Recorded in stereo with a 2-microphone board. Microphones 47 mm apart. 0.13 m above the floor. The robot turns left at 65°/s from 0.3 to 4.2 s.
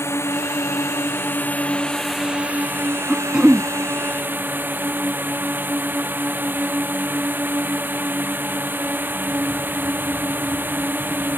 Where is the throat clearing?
Straight ahead; by 3.7 s 40° right.